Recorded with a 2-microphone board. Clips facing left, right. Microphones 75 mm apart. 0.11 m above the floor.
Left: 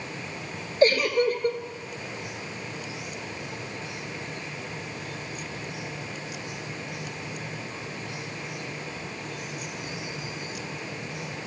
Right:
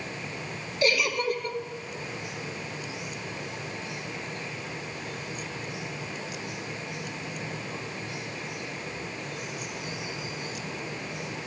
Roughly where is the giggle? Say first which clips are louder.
Left 5 dB; left.